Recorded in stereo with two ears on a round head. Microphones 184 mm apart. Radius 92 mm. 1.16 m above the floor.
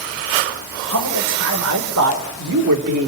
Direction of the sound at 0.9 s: 85° right.